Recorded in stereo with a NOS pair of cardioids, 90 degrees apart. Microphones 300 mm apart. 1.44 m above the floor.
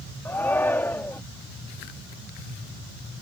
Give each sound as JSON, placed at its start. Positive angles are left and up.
{"t": 0.2, "sound": "a shout", "azimuth_deg": 5}